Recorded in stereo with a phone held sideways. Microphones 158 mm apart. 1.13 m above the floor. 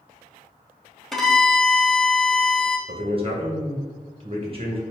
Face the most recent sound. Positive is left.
turn(degrees=-35)  # may be behind; listen again after turning